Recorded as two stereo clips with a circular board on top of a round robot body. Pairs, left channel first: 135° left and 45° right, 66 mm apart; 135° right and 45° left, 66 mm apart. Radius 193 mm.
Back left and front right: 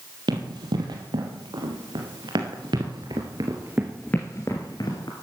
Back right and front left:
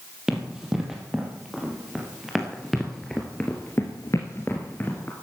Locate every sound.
0.3 s running footsteps: 40° right, 2 m; by 5.1 s 155° left, 1.1 m